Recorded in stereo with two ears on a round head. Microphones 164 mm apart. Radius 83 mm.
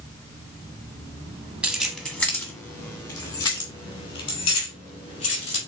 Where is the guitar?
No guitar in this recording.